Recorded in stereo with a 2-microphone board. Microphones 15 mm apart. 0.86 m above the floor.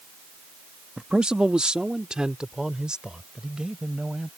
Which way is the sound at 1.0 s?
60° right (ahead or behind).